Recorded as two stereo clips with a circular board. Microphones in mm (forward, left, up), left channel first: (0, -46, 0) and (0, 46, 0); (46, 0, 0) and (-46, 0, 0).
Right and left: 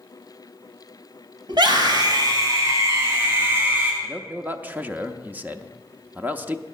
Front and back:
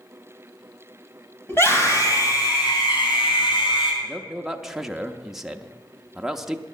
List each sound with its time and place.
1.5 s a scream: 65° left, 3.5 m; by 3.9 s 20° left, 5.5 m
4.0 s a man speaking: 105° left, 0.6 m